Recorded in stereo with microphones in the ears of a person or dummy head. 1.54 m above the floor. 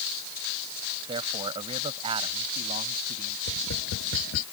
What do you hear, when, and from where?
1.1 s a man speaking: 25° right (ahead or behind); by 3.4 s 45° right (ahead or behind)
3.5 s tapping: 80° left